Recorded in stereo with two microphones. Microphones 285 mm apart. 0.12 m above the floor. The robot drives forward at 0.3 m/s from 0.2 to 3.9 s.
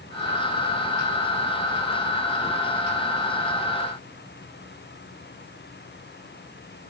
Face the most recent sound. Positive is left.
No sound to turn to.